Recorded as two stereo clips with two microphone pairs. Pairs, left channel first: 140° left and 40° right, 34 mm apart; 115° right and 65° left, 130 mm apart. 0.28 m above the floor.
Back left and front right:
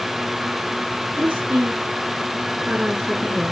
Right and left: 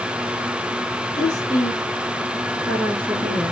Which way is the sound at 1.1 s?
65° right.